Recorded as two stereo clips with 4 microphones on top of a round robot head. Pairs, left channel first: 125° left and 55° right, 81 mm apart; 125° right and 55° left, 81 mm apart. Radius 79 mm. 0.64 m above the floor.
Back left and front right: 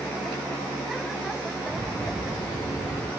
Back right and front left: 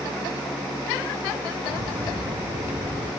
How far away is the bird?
About 6.5 m.